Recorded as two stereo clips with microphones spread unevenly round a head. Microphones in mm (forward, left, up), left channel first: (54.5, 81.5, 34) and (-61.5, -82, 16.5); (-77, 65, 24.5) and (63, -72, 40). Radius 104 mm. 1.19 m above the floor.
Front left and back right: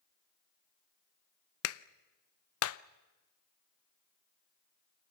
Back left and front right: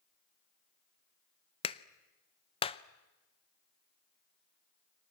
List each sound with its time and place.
1.6 s a clap: 70° left, 0.6 m